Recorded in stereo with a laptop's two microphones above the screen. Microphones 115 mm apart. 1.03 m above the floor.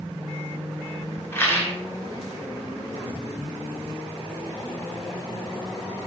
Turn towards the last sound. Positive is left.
turn(degrees=20)  # may be behind; listen again after turning